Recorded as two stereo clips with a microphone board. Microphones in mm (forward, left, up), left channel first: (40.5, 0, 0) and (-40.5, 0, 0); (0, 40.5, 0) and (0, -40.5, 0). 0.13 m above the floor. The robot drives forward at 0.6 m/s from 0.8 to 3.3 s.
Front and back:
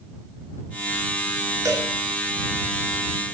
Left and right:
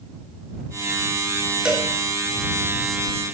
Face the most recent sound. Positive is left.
turn(degrees=-170)